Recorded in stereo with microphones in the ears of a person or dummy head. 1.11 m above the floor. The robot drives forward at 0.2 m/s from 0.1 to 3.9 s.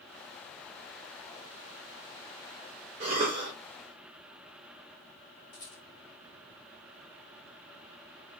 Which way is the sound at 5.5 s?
45° left (ahead or behind).